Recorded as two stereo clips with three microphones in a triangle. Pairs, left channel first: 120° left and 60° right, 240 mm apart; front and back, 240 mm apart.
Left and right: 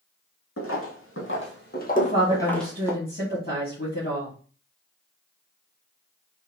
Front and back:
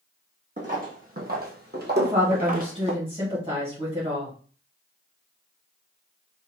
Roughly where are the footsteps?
Behind left.